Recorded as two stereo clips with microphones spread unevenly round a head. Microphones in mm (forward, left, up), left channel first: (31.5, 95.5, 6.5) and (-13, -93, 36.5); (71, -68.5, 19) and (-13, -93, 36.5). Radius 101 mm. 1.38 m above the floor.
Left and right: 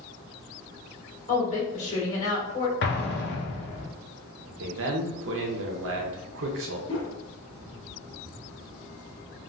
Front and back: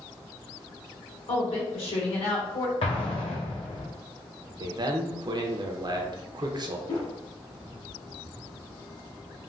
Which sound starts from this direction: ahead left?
An explosion, at 2.8 s.